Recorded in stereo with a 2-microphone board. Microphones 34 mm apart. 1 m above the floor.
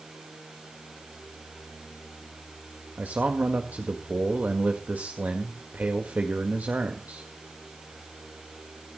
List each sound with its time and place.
3.0 s a man speaking: 55° right (ahead or behind), 1.7 m